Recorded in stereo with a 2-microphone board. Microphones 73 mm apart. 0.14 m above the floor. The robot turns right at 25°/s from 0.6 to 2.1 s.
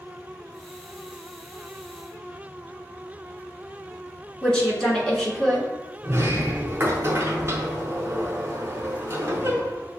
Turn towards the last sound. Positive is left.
turn(degrees=-35)  # may be behind; listen again after turning